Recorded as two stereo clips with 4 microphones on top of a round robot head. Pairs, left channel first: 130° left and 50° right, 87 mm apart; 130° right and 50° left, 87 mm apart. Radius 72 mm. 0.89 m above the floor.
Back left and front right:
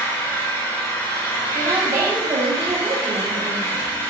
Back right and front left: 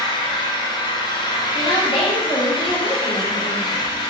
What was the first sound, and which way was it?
An engine running, 165° right.